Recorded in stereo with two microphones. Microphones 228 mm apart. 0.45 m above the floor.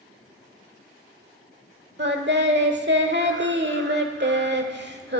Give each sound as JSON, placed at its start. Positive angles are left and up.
{"t": 2.0, "sound": "singing", "side_deg": -50, "distance_m": 1.4}